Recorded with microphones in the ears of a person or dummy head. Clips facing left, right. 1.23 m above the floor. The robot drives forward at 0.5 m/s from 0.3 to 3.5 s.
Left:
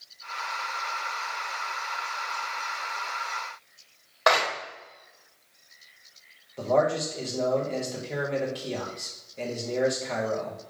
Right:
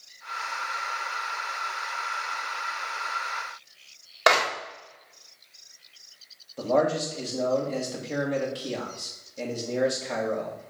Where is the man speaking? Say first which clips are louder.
Even; centre (ahead or behind), 1.7 m.